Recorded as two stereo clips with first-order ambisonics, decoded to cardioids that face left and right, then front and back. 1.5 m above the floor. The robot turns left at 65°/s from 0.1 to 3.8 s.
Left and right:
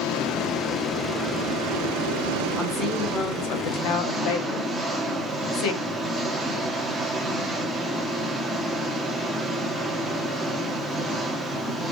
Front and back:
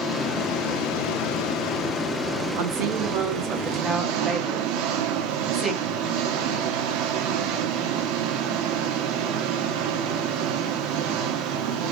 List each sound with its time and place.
0.0 s an engine running: 60° left, 2.5 m; by 11.9 s straight behind, 2.5 m
2.6 s a woman speaking: 175° left, 3 m; by 5.8 s 95° left, 3 m